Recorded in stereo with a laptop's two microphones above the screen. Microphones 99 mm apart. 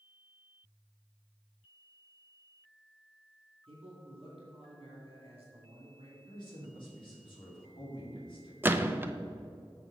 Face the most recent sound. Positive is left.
turn(degrees=-20)  # may be behind; listen again after turning